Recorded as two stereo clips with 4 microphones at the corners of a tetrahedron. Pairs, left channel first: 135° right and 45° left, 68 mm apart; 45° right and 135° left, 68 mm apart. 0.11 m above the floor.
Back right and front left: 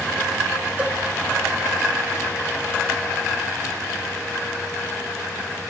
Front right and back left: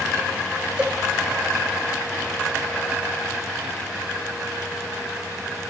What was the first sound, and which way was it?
A cowbell, 90° left.